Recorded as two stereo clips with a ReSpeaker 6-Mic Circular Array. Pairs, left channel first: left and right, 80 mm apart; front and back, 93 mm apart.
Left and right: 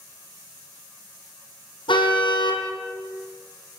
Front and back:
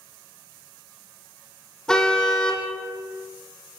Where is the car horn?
85° left, 5.5 m.